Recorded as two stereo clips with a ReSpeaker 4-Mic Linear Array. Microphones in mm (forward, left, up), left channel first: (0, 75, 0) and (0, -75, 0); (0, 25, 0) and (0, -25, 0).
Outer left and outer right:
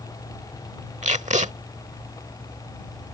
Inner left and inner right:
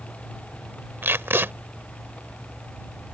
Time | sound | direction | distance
1.0 | tape being pulled | 55° right (ahead or behind) | ?